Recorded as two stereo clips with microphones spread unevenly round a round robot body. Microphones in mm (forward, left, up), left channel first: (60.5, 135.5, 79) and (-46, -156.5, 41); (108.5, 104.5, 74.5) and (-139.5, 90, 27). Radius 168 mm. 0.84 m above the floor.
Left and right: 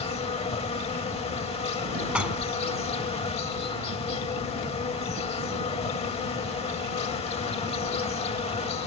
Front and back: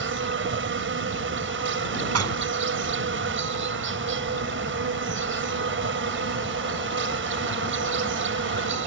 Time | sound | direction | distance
0.0 | an insect | 140° left | ?
2.1 | dishes clattering | 160° left | ?